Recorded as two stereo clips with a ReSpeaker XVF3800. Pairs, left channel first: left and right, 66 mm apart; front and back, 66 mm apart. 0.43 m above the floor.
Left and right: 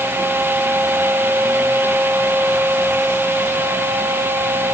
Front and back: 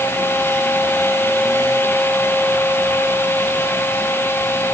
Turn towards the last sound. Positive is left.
No sound to turn to.